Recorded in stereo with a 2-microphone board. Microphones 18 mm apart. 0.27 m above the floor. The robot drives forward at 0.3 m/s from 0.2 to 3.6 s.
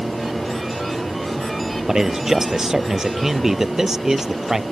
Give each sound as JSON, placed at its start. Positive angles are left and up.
{"t": 1.9, "sound": "a man speaking", "side_deg": -30}